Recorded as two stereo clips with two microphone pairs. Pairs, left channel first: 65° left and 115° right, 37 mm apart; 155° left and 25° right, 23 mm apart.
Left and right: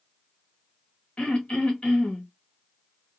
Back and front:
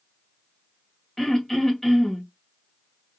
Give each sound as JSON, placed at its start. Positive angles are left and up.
{"t": 1.2, "sound": "throat clearing", "azimuth_deg": 90, "distance_m": 1.5}